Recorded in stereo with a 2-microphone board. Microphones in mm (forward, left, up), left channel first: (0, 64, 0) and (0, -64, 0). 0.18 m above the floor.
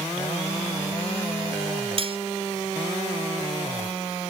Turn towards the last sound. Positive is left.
turn(degrees=-50)  # may be behind; listen again after turning